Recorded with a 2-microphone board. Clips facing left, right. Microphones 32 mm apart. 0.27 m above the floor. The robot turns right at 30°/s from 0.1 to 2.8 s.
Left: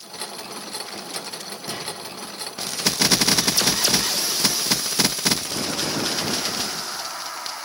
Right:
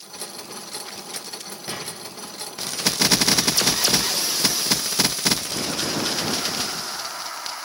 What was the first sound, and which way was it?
A squeak, 40° right (ahead or behind).